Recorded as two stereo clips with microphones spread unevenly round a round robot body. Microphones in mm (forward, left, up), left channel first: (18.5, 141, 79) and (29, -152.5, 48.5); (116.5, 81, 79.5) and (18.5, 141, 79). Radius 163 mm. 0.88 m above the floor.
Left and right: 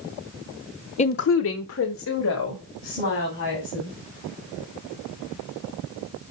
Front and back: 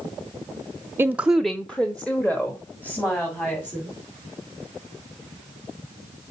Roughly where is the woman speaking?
Behind left.